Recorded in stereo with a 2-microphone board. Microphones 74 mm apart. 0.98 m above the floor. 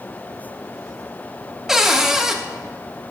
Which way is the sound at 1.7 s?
5° right (ahead or behind).